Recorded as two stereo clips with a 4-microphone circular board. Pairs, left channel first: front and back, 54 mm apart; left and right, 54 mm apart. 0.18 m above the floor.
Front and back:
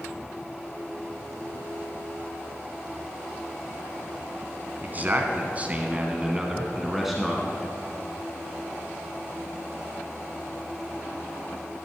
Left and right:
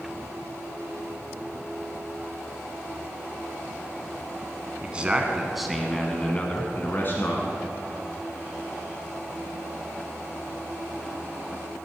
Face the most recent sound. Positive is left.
turn(degrees=85)